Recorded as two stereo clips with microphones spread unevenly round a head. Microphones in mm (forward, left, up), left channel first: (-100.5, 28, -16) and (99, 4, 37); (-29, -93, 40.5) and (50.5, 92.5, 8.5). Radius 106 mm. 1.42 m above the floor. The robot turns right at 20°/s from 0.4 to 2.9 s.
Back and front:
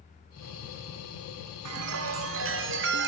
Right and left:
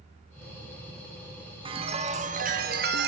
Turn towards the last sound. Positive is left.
turn(degrees=25)